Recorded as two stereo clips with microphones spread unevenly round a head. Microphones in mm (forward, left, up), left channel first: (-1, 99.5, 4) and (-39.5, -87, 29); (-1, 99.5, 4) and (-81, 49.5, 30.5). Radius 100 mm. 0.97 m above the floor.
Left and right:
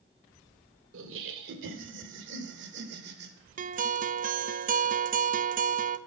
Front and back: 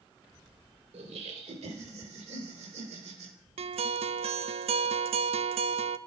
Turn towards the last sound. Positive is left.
turn(degrees=-145)